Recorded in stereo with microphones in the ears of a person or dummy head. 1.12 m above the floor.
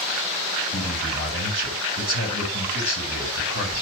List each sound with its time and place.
0.7 s a man speaking: 50° left (ahead or behind), 4 m